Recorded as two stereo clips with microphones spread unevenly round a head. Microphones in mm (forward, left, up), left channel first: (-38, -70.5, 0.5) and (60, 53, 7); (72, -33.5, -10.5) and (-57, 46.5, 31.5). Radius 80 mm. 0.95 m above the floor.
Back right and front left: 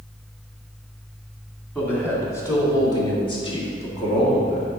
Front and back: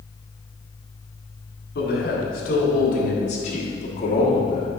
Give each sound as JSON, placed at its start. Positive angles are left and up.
{"t": 1.8, "sound": "a man speaking", "azimuth_deg": -50, "distance_m": 2.5}